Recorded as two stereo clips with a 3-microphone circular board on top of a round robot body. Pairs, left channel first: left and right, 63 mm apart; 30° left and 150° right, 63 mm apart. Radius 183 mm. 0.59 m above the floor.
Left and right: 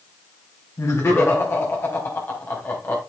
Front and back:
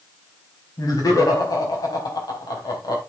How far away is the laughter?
About 4.5 m.